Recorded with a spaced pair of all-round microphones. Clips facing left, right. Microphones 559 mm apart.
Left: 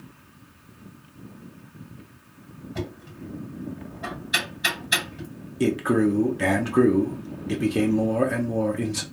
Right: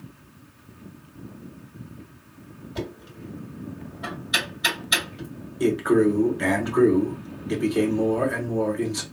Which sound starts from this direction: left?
A man speaking, at 5.6 s.